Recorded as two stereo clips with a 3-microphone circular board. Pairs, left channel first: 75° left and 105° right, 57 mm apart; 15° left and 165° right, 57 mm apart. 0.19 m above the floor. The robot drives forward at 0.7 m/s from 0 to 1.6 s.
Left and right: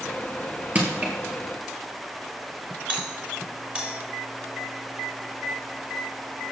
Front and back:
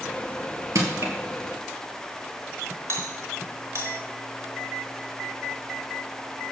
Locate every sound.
0.8 s crushing: 165° right, 3 m
2.9 s a doorbell: 165° right, 3.5 m